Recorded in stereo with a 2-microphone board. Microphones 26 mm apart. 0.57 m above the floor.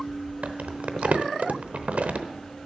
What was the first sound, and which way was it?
Crumpling, 70° right (ahead or behind).